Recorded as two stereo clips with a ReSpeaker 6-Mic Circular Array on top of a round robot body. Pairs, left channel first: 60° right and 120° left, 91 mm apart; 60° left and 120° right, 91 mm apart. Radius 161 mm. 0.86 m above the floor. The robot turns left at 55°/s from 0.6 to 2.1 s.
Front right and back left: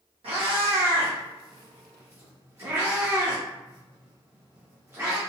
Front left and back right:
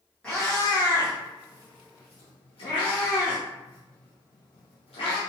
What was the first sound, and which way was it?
A cat meowing, 140° left.